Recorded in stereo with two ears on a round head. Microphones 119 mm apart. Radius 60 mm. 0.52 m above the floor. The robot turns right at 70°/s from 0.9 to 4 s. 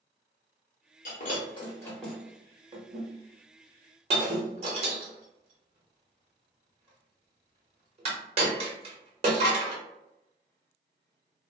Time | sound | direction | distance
1.1 | breaking glass | 70° left (ahead or behind) | 0.8 m